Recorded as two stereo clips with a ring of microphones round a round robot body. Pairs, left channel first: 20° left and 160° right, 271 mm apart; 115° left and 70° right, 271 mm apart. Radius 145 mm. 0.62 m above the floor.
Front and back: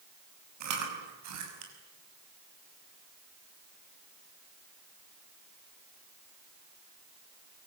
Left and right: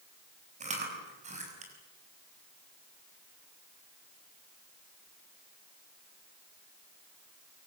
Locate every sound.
0.6 s chewing: 135° right, 6 m